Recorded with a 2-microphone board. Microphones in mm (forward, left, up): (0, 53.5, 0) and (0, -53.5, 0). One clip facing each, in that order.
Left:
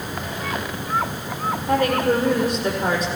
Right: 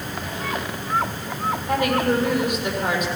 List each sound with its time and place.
1.7 s a woman speaking: 35° left (ahead or behind), 7 m